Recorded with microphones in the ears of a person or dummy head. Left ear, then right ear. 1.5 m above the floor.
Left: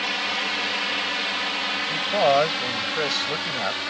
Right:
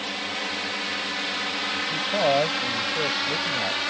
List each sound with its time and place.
0.0 s a drone: 45° left (ahead or behind); by 3.9 s centre (ahead or behind)
1.9 s a man speaking: 60° left (ahead or behind)